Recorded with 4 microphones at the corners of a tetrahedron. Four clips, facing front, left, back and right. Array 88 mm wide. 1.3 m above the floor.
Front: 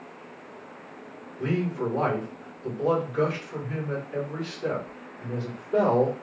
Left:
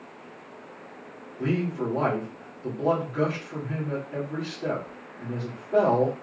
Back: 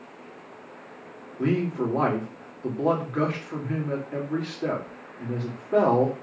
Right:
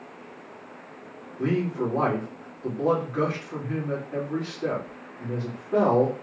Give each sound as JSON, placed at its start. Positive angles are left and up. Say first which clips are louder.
{"t": 1.4, "sound": "a man speaking", "louder": "right 2 dB, back 2 dB", "azimuth_deg": -160, "distance_m": 2.5}